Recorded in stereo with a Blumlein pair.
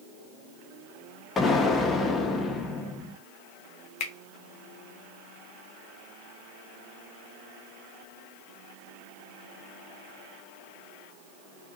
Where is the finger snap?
45° left, 0.6 m.